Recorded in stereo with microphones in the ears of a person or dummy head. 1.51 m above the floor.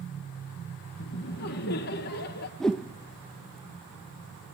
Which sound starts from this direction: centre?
A whoosh, at 2.6 s.